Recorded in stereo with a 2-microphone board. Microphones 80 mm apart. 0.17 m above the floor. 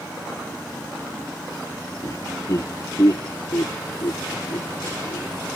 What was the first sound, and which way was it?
Laughter, 40° left (ahead or behind).